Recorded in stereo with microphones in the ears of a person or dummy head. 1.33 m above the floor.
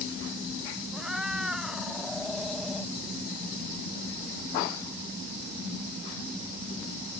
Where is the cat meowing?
5° right (ahead or behind); by 2.9 s centre (ahead or behind).